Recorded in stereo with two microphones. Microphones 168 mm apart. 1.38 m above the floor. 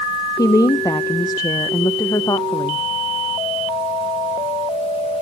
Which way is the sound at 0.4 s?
20° left (ahead or behind).